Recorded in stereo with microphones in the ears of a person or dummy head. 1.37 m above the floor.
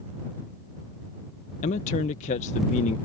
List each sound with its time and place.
1.6 s a man speaking: 40° left (ahead or behind)